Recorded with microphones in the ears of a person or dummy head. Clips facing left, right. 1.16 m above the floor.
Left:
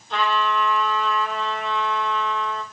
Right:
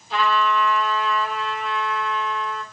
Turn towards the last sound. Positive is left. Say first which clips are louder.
# right 2 dB
turn(degrees=-5)  # may be behind; listen again after turning